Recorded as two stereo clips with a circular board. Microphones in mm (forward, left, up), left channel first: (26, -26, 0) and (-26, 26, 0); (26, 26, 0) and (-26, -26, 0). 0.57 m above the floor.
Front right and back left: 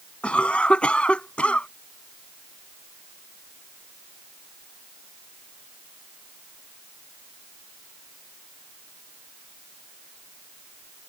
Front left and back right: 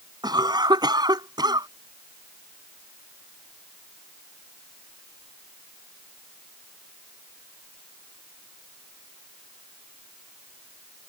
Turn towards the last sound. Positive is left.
turn(degrees=-120)